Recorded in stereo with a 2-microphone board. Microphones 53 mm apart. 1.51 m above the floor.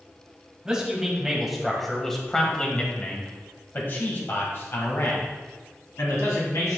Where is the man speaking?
15° right (ahead or behind), 2.0 m; by 6.8 s 70° left (ahead or behind), 2.5 m.